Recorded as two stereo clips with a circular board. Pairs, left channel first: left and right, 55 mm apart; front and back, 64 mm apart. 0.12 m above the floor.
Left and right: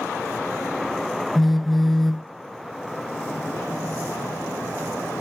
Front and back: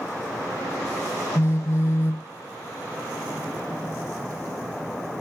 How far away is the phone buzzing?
About 0.6 m.